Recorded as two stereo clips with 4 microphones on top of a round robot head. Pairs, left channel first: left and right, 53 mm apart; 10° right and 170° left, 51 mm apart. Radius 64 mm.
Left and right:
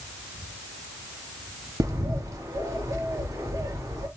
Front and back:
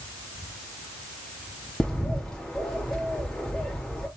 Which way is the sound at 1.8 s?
95° right.